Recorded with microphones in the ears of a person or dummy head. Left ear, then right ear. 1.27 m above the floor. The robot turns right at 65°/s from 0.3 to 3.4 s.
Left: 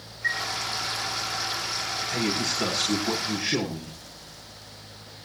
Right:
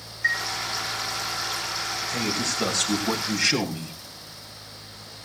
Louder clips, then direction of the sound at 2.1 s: Left 1 dB; 150° left.